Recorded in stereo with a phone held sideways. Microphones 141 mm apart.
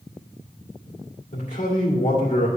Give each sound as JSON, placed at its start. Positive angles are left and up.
{"t": 1.3, "sound": "a man speaking", "side_deg": 65, "distance_m": 2.5}